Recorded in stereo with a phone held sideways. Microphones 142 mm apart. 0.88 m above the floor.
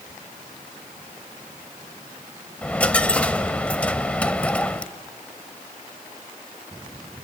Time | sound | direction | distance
2.6 | a dropped coin | 10° left (ahead or behind) | 0.7 m